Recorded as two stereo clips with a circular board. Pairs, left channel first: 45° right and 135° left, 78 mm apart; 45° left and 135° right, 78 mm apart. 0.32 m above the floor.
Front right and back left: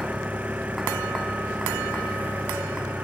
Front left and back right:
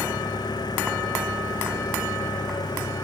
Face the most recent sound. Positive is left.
turn(degrees=65)